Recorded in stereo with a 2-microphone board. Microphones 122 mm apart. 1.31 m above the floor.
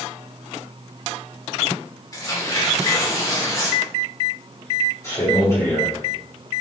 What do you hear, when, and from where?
2.1 s tearing paper: 30° left (ahead or behind), 1.1 m
5.0 s a man speaking: 25° left (ahead or behind), 1.0 m